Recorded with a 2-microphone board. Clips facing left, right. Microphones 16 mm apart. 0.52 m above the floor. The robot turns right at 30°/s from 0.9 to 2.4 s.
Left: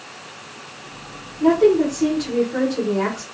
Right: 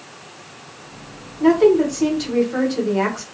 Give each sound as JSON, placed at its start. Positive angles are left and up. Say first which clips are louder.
{"t": 1.4, "sound": "a woman speaking", "louder": "right 1 dB", "side_deg": -25, "distance_m": 1.1}